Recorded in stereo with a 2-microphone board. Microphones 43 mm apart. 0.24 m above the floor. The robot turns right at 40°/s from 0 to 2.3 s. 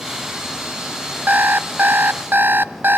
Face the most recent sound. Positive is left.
turn(degrees=-80)